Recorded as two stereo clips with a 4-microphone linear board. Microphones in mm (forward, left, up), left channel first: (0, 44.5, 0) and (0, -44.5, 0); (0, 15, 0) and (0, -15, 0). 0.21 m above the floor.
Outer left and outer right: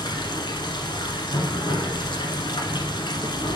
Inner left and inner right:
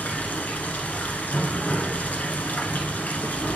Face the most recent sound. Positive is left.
turn(degrees=60)  # may be behind; listen again after turning